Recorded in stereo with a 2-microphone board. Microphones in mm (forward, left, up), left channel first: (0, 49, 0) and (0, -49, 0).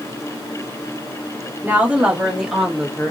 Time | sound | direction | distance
1.6 | a woman speaking | 15° right (ahead or behind) | 1.6 m